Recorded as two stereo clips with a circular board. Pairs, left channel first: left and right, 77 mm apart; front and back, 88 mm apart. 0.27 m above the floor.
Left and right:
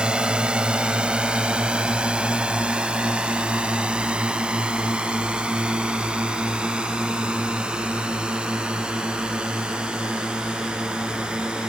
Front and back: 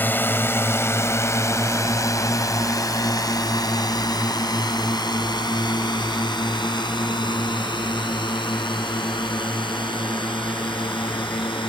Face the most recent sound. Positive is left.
turn(degrees=-15)